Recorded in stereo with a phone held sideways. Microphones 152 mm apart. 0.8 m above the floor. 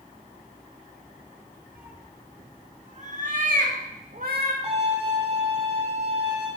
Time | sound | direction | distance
1.8 | a cat meowing | 10° right (ahead or behind) | 0.9 m
4.6 | a violin | 45° right (ahead or behind) | 3 m